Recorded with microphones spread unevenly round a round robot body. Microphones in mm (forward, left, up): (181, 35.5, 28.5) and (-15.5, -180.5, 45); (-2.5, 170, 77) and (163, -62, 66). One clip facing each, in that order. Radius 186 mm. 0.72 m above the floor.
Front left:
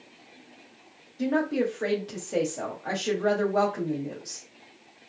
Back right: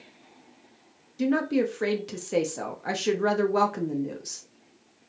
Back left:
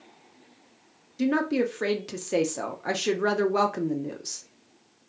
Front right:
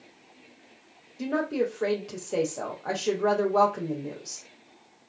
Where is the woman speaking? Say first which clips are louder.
Back right 2 dB, back left 3 dB; straight behind, 0.6 m.